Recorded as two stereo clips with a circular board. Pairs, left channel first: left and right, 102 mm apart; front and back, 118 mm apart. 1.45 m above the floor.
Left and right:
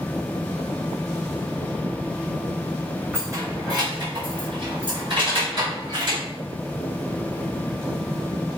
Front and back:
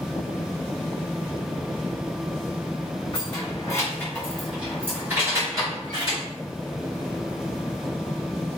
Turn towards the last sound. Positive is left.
turn(degrees=-130)